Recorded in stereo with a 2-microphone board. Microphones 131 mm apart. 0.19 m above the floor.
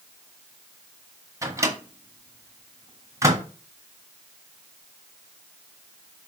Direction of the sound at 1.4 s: 25° right (ahead or behind).